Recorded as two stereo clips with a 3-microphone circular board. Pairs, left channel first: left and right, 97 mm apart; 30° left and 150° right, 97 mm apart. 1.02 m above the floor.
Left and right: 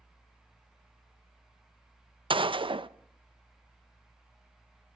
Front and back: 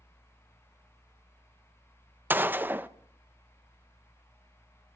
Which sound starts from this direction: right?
A gunshot, at 2.3 s.